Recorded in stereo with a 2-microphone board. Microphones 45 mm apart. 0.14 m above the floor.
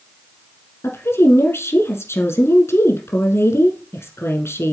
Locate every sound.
0.8 s a woman speaking: 65° left (ahead or behind), 3.5 m